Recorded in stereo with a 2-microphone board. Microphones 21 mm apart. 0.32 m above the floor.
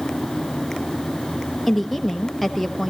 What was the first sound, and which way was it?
A woman speaking, centre (ahead or behind).